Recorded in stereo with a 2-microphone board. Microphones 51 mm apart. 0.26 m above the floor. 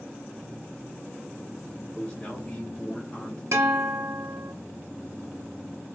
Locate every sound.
1.9 s a man speaking: 30° left (ahead or behind), 1.4 m; by 3.4 s 15° left (ahead or behind), 1.4 m
3.5 s a guitar: 65° right (ahead or behind), 1.4 m